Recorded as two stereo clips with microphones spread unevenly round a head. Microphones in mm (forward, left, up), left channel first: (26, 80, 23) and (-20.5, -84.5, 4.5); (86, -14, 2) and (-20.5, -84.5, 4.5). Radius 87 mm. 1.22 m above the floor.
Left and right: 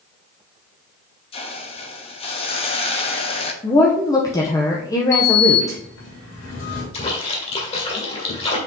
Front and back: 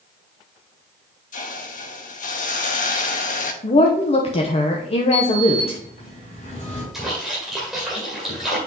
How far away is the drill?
I don't hear a drill.